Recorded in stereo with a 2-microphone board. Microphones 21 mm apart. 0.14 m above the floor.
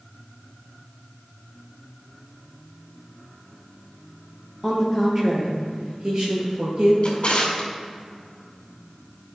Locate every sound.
4.6 s a woman speaking: 20° right (ahead or behind), 3 m; by 6.9 s 45° right (ahead or behind), 2.5 m
7.0 s a drawer: 50° left (ahead or behind), 2 m